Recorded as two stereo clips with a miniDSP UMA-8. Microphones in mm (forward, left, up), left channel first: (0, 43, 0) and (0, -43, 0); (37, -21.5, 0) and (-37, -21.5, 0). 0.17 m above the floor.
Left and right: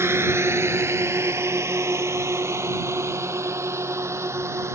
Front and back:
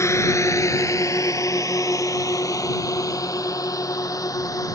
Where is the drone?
35° right.